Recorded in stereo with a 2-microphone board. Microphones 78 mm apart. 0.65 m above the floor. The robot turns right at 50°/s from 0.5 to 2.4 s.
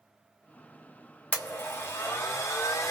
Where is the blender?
30° left, 1.5 m; by 2.9 s 80° left, 1.5 m.